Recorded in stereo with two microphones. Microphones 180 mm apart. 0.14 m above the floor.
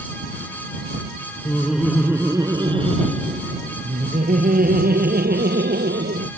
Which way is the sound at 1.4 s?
5° left (ahead or behind).